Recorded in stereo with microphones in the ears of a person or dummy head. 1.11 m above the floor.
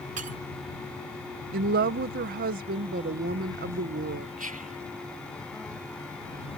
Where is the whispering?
35° right (ahead or behind).